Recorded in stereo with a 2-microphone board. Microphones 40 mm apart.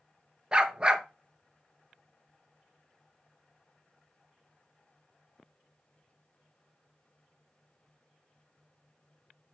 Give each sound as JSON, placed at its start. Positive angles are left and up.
{"t": 0.5, "sound": "a dog barking", "side_deg": -20, "distance_m": 1.1}